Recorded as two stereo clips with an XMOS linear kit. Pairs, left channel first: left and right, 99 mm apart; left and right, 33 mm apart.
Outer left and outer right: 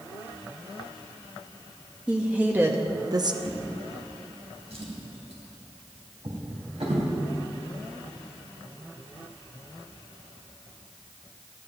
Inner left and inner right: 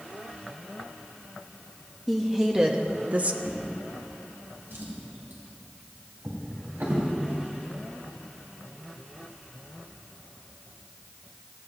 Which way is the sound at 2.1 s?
10° right (ahead or behind).